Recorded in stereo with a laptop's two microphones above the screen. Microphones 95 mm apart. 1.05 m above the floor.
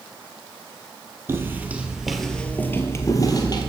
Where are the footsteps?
25° right (ahead or behind), 1.5 m; by 3.7 s 50° left (ahead or behind), 1.6 m.